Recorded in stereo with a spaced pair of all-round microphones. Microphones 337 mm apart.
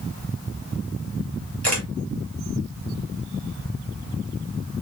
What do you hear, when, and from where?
1.6 s a camera shutter: 45° right (ahead or behind), 2 m